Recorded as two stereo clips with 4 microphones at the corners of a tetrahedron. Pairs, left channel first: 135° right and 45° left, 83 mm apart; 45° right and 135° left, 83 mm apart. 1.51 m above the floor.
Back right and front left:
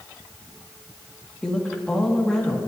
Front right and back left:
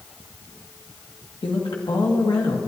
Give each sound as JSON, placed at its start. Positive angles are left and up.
{"t": 1.4, "sound": "a woman speaking", "azimuth_deg": -55, "distance_m": 1.8}